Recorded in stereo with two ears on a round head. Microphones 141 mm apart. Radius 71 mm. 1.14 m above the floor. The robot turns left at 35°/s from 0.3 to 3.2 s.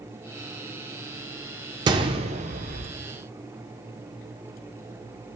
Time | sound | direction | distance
1.9 | a gunshot | 30° right (ahead or behind) | 0.6 m